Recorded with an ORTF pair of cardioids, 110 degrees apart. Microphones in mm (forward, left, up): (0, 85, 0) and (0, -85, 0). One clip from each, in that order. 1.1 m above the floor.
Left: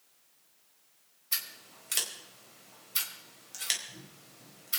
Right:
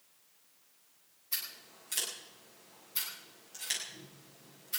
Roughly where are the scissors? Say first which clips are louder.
Left 4 dB; ahead left.